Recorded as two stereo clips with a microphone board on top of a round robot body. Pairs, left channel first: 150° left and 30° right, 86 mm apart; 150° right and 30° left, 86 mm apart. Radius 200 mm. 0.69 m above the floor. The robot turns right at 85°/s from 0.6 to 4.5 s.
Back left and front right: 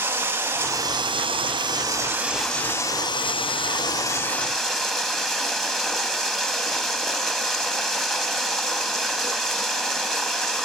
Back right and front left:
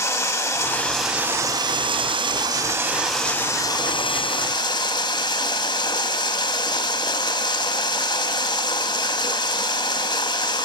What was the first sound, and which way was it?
Running water, 95° right.